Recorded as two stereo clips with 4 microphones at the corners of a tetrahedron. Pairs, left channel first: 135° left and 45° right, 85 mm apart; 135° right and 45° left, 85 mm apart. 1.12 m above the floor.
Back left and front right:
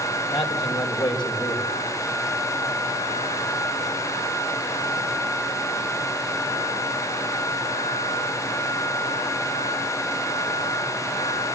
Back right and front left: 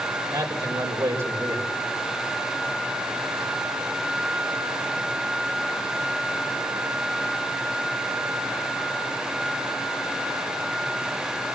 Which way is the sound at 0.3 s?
105° left.